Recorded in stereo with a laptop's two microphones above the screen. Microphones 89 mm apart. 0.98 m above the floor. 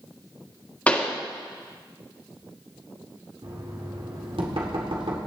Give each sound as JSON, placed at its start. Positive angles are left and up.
{"t": 0.9, "sound": "a pop", "side_deg": 15, "distance_m": 1.5}
{"t": 3.4, "sound": "knocking", "side_deg": -85, "distance_m": 1.9}